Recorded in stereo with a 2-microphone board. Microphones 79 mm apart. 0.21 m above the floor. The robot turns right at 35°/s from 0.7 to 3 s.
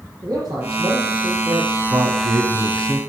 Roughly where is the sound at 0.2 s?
Behind right.